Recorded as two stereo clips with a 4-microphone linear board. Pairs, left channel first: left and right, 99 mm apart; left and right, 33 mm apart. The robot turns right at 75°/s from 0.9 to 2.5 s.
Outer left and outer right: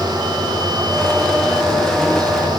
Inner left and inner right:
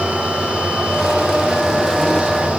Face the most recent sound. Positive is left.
No sound to turn to.